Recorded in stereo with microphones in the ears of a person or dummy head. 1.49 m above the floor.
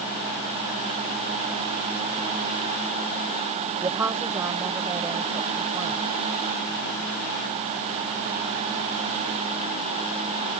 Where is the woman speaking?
10° right (ahead or behind).